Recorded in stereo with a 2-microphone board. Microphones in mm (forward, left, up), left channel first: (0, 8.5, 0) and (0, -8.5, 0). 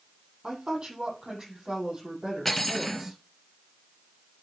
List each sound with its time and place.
0.4 s a woman speaking: 50° right (ahead or behind), 6 m; by 3.2 s 40° right (ahead or behind), 8 m
2.5 s cutlery clinking: 10° left (ahead or behind), 3 m